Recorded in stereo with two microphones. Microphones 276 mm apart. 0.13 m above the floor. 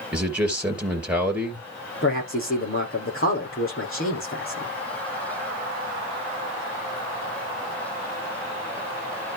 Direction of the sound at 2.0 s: 50° left (ahead or behind).